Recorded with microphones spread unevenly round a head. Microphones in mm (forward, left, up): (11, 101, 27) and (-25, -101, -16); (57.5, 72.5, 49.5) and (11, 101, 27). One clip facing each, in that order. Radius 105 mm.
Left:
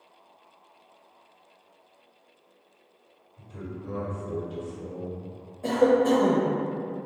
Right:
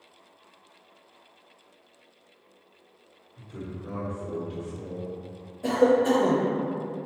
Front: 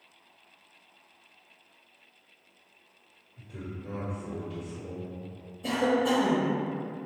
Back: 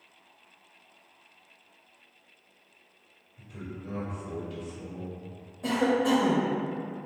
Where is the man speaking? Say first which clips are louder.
Even, even; 65° right, 1.3 m.